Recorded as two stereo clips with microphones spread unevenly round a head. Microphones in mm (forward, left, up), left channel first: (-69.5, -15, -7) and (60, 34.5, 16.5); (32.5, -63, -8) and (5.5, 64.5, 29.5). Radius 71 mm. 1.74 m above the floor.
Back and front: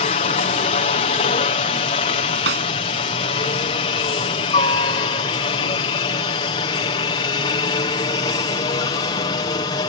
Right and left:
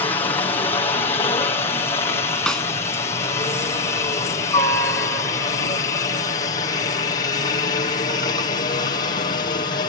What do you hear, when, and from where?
0.0 s a helicopter: 135° right; by 9.9 s 110° right
2.5 s a snare drum: 10° left